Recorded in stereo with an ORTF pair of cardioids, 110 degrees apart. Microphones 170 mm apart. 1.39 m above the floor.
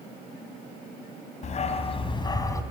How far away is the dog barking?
About 3.5 m.